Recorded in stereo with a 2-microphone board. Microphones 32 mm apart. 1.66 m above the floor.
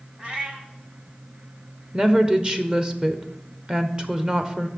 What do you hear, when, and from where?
0.2 s a cat meowing: 30° right (ahead or behind), 1.2 m
1.9 s a woman speaking: 25° right (ahead or behind), 0.9 m